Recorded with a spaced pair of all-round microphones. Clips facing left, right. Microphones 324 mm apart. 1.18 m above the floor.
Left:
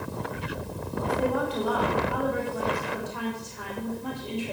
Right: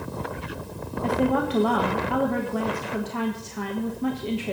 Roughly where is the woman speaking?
Right.